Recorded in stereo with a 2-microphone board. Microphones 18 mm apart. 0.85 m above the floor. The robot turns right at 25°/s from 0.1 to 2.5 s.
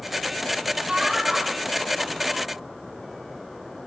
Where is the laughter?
80° right, 6 m; by 2.4 s 40° right, 6 m.